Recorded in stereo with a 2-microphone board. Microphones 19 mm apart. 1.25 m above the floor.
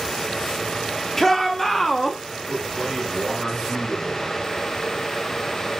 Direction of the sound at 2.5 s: 5° right (ahead or behind).